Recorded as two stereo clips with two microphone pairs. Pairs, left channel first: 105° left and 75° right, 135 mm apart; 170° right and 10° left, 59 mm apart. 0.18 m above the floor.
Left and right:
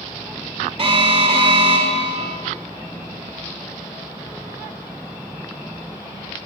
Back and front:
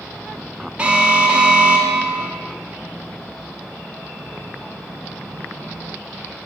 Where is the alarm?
50° right, 0.9 m.